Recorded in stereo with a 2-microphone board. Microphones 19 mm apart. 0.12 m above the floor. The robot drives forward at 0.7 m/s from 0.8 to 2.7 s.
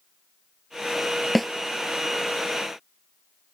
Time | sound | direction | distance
1.4 | a snare drum | 5° left (ahead or behind) | ?